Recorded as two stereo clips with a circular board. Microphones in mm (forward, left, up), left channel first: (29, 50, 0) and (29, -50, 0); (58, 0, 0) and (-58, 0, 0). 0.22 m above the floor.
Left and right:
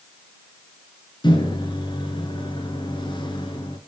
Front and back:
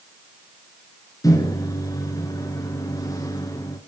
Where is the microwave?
55° left, 3 m.